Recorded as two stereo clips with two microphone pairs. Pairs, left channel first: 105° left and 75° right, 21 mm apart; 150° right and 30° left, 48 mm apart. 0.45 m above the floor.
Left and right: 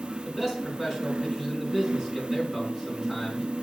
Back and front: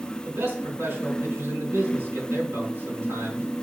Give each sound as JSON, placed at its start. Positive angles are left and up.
{"t": 0.2, "sound": "a man speaking", "azimuth_deg": 5, "distance_m": 4.0}